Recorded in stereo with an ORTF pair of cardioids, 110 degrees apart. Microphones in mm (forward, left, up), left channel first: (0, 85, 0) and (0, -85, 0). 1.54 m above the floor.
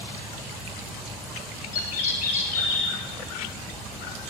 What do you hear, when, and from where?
1.7 s a bird: 65° left, 3 m